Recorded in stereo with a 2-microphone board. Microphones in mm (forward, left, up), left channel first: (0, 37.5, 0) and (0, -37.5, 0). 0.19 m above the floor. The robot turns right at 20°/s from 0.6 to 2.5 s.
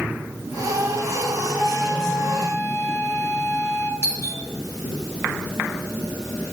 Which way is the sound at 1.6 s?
5° right (ahead or behind).